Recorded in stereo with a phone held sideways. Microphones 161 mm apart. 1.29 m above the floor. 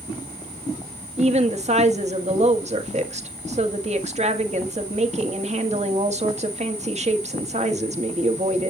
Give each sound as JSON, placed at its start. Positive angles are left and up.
{"t": 1.2, "sound": "a woman speaking", "side_deg": -45, "distance_m": 1.6}